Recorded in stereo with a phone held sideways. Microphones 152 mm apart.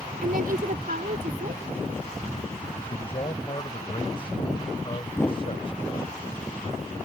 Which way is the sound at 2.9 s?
35° left (ahead or behind).